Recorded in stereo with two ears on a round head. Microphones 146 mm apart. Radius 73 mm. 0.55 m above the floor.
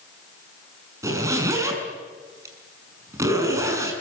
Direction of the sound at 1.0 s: 20° right (ahead or behind).